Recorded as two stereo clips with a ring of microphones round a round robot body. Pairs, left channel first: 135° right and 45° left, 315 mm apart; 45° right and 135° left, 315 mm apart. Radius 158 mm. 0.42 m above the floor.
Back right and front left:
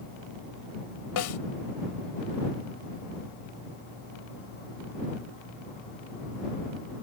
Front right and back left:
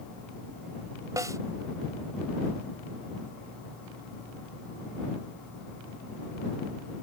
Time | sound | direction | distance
1.2 | a snare drum | 145° right | ?